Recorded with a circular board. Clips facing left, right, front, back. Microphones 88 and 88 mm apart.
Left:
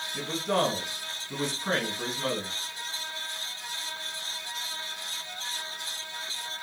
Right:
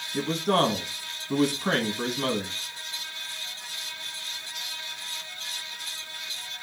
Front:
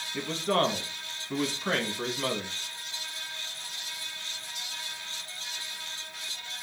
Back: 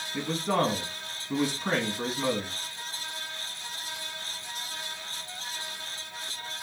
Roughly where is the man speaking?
Right.